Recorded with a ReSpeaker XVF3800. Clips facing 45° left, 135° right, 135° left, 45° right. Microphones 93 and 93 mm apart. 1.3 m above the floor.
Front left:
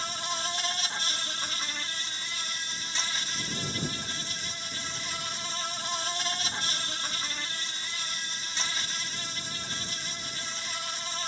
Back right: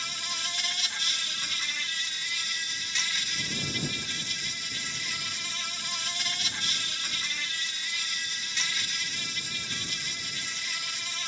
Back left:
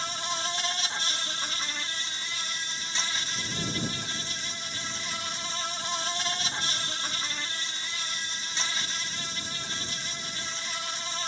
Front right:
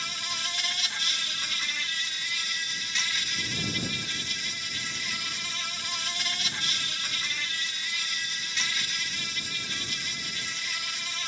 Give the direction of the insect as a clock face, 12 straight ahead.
9 o'clock.